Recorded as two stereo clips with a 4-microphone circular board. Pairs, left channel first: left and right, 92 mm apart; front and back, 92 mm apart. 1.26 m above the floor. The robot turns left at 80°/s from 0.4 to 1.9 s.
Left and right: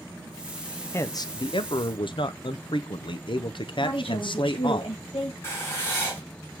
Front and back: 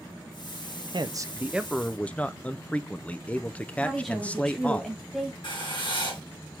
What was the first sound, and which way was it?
A man speaking, 150° left.